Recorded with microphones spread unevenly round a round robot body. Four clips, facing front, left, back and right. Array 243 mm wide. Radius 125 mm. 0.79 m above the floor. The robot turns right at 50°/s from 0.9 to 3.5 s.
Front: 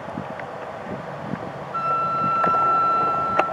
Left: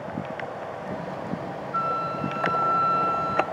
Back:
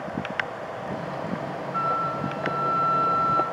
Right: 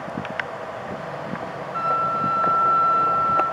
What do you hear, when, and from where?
1.7 s a flute: 10° left, 0.6 m; by 3.4 s 95° left, 0.6 m